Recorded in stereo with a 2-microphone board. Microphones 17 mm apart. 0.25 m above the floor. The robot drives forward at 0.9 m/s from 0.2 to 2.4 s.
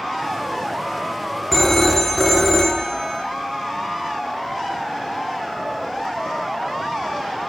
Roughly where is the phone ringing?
Left.